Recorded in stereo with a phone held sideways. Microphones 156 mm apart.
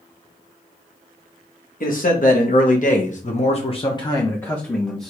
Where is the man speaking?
55° left (ahead or behind), 1.5 m; by 5.1 s centre (ahead or behind), 1.2 m.